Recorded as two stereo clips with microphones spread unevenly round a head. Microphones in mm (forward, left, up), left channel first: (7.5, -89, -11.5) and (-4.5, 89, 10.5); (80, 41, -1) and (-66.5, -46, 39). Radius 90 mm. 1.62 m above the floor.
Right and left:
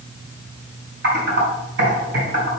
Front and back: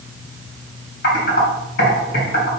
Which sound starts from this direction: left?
Typing on a keyboard, at 1.0 s.